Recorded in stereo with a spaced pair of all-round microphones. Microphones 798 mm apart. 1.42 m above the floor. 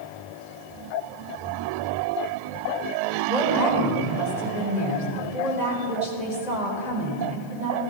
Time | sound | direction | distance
3.3 | a woman speaking | 60° left (ahead or behind) | 4.5 m